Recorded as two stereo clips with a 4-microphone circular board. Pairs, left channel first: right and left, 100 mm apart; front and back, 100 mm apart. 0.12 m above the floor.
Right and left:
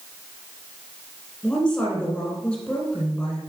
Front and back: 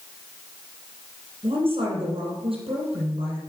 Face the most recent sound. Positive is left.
turn(degrees=-165)